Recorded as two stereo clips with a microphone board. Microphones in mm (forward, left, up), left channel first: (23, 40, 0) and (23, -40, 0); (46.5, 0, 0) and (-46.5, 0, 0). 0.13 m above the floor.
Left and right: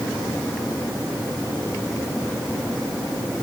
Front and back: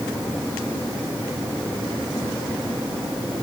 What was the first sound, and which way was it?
Only background noise.